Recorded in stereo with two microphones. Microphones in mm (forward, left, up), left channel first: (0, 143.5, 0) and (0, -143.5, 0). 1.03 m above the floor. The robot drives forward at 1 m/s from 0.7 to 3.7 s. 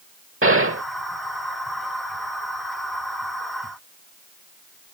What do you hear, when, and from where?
0.4 s a gunshot: 50° right (ahead or behind)